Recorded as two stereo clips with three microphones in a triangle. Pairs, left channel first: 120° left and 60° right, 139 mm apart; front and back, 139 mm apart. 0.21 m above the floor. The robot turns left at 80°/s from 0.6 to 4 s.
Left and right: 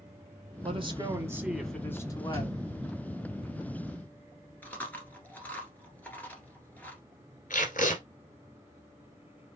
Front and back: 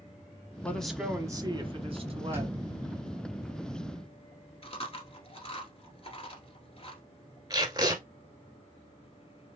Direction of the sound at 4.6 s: 45° left.